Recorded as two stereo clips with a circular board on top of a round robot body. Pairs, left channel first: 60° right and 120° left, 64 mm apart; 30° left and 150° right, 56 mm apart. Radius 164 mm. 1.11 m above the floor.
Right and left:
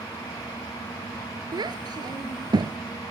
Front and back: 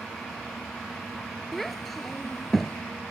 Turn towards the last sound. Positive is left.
turn(degrees=115)